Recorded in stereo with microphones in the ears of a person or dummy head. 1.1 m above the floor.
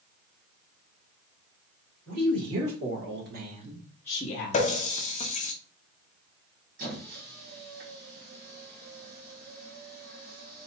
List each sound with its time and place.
2.1 s a woman speaking: 65° right (ahead or behind), 2 m; by 4.7 s 55° left (ahead or behind), 1.0 m
4.5 s a running tap: 40° left (ahead or behind), 0.5 m
6.8 s a squeak: 55° right (ahead or behind), 1.4 m